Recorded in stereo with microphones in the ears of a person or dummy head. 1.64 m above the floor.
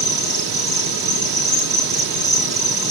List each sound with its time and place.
0.0 s an insect: centre (ahead or behind), 1.5 m